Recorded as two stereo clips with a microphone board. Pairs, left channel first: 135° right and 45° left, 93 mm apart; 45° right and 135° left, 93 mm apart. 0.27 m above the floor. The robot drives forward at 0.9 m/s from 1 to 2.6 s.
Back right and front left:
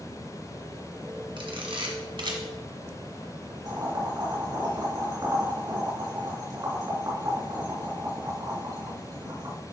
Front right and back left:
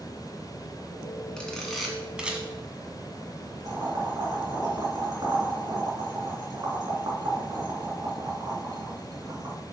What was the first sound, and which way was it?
A camera shutter, 35° left.